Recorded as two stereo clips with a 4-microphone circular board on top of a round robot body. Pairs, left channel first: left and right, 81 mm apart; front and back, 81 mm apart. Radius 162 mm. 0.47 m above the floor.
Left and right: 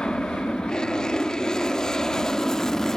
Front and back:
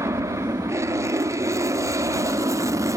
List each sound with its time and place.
0.0 s an aircraft: 165° left; by 3.0 s 170° left